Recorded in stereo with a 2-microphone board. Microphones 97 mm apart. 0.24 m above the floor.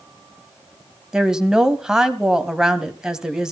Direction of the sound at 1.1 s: 5° right (ahead or behind).